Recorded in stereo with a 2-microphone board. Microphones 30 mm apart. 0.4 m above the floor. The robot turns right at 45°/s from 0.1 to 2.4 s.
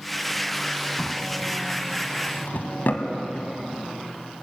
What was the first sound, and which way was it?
A drawer, 10° left (ahead or behind).